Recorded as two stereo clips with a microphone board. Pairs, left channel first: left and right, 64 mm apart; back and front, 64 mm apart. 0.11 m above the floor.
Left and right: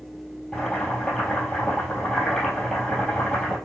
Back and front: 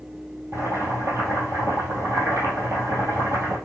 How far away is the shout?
No shout in this recording.